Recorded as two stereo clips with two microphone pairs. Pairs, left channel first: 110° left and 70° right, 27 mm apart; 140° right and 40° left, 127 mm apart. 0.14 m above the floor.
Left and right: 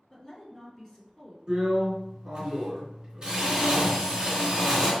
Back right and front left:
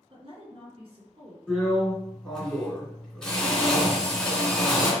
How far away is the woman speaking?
About 1.5 m.